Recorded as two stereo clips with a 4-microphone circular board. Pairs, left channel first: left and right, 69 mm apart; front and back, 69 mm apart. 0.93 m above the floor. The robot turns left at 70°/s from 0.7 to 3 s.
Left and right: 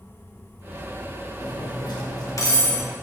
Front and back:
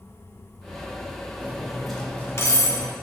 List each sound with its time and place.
1.4 s cutlery clinking: 120° left, 0.9 m; by 2.9 s 10° left, 0.9 m